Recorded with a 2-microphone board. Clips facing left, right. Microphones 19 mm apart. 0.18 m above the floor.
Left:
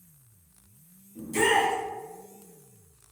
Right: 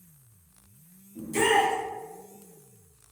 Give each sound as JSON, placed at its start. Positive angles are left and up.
{"t": 1.1, "sound": "a shout", "side_deg": 5, "distance_m": 1.3}